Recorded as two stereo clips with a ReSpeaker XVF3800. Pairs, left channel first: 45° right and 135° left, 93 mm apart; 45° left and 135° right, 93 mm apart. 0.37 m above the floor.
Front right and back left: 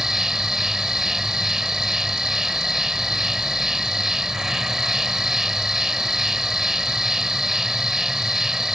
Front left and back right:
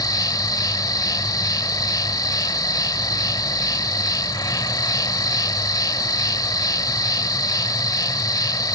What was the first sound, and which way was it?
An insect, 50° left.